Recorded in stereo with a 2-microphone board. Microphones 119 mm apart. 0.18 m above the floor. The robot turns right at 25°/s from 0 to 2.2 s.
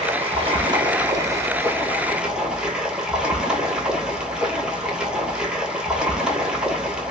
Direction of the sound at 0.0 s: 60° right.